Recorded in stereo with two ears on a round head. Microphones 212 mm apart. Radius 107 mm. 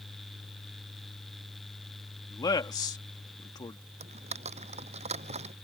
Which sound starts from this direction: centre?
A man speaking, at 2.3 s.